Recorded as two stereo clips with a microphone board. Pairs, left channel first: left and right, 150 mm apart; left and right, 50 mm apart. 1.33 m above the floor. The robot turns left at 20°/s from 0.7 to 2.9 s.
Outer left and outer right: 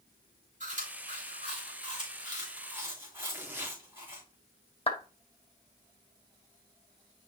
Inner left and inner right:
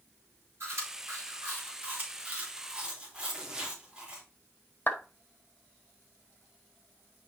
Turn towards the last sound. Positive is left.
turn(degrees=40)  # may be behind; listen again after turning